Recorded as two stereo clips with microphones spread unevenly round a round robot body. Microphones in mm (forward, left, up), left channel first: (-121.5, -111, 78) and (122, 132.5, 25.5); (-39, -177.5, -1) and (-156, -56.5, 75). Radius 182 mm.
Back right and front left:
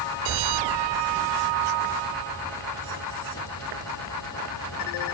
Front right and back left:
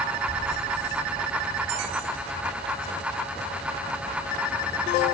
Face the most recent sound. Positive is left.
No sound to turn to.